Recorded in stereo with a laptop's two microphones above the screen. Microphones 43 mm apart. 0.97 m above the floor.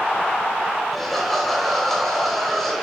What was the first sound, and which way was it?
Laughter, 5° left (ahead or behind).